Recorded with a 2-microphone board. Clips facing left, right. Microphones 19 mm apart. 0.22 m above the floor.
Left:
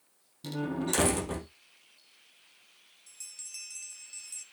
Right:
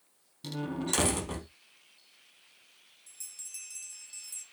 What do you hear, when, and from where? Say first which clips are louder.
0.4 s a door slam: left 2 dB; 5° right (ahead or behind), 4 m
3.1 s a bell: left 1 dB; 20° left (ahead or behind), 1.7 m